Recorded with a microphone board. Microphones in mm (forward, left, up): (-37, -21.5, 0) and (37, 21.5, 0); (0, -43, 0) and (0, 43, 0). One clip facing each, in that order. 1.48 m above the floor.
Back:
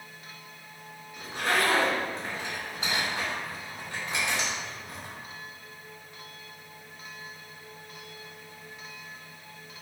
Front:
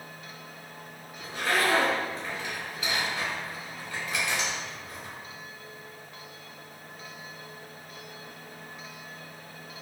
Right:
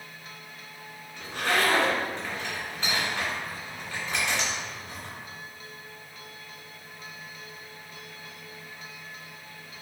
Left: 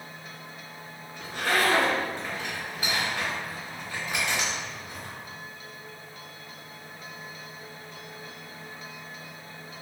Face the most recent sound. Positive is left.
turn(degrees=165)